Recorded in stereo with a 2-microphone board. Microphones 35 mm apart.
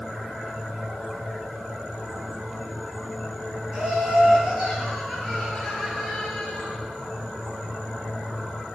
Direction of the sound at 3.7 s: 30° right (ahead or behind).